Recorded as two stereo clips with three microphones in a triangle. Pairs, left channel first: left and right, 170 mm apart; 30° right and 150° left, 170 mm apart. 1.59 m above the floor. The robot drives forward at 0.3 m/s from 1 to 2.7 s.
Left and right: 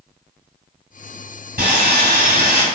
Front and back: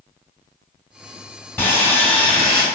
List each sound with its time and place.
1.6 s sawing: 105° right, 2.5 m; by 2.6 s 115° right, 2.5 m